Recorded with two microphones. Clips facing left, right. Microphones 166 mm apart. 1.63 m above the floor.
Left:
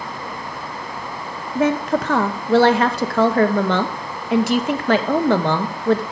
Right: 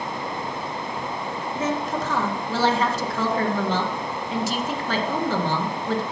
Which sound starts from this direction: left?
A woman speaking, at 1.6 s.